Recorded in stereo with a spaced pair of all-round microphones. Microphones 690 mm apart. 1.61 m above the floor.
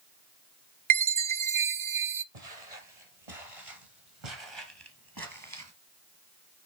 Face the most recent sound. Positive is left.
turn(degrees=-20)  # may be behind; listen again after turning